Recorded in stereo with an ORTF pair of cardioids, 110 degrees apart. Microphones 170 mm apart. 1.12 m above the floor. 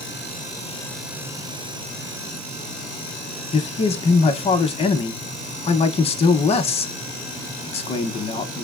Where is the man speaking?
35° left, 0.8 m.